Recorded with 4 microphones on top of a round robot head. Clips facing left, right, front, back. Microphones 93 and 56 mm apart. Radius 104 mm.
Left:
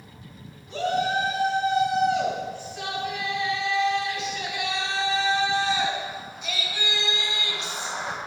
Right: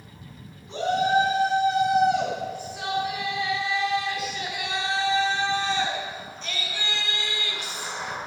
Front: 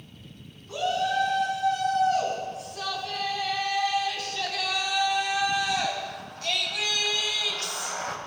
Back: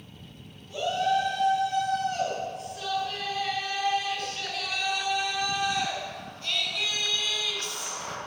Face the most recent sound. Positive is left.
turn(degrees=25)